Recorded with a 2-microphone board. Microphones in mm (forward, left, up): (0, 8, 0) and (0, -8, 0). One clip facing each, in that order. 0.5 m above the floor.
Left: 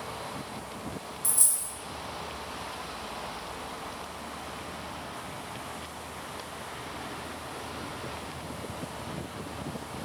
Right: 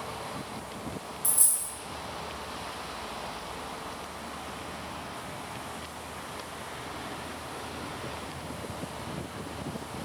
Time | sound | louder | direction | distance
1.2 | a dropped coin | left 1 dB | 25° left (ahead or behind) | 0.6 m